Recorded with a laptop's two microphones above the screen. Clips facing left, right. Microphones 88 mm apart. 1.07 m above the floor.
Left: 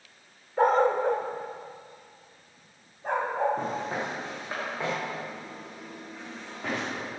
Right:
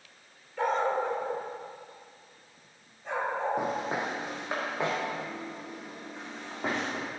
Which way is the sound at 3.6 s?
10° right (ahead or behind).